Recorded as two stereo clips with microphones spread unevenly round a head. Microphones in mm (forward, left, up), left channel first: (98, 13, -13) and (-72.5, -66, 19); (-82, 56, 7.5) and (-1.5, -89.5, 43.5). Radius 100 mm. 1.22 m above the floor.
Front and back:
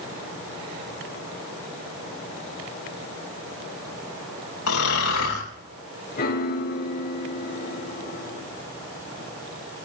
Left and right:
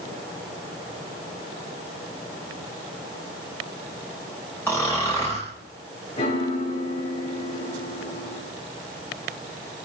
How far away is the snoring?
About 5.5 m.